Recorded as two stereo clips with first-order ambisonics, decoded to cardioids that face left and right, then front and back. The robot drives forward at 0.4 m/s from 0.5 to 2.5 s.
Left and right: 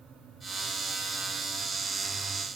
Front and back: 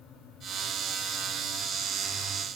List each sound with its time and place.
Only background noise.